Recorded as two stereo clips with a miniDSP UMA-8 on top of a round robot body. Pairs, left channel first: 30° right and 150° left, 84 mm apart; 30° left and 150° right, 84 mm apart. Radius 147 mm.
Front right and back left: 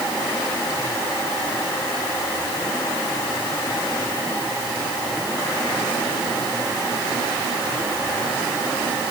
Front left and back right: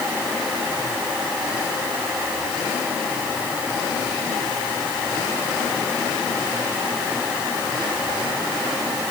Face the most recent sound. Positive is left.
No sound to turn to.